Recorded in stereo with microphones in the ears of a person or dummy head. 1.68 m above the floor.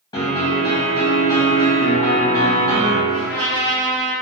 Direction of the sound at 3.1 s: 50° left (ahead or behind).